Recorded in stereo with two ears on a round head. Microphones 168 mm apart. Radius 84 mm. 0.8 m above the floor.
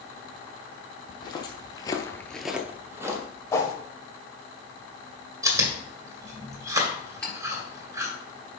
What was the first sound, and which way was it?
Footsteps, 25° left (ahead or behind).